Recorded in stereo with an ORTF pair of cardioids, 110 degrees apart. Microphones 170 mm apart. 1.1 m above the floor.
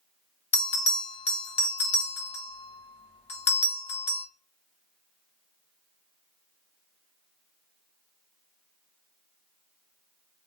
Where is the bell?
35° left, 1.1 m.